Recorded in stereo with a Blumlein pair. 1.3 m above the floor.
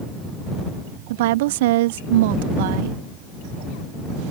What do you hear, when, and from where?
1.1 s a woman speaking: 50° right